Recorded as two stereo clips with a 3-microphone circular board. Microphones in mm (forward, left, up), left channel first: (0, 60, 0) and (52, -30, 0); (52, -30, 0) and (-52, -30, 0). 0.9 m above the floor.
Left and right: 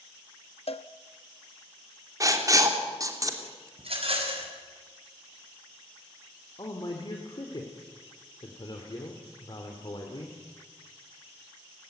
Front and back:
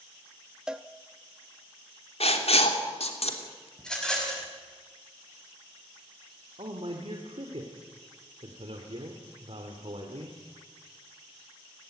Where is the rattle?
85° right, 5.5 m.